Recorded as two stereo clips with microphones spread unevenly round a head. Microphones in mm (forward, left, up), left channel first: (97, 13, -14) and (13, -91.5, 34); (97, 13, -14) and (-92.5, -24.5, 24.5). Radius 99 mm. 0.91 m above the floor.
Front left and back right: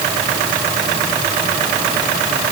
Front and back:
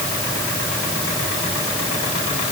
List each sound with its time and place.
Only background noise.